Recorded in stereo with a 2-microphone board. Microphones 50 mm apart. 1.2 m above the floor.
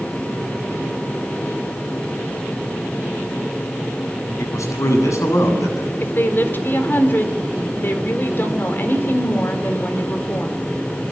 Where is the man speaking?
80° left, 8.5 m.